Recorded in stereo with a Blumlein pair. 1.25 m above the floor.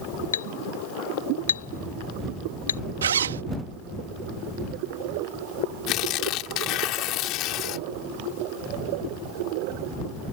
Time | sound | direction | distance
0.3 | a clink | 70° left | ?
3.0 | a zipper | 65° right | ?
5.9 | tearing paper | 35° left | ?